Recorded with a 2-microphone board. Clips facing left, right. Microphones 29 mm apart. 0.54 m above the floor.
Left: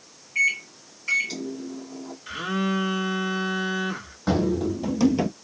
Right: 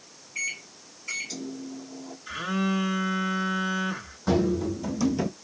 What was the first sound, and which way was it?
A microwave, 25° left (ahead or behind).